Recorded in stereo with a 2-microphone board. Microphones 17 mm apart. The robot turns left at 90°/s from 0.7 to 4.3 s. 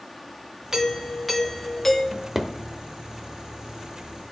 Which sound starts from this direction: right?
A drawer, at 2.1 s.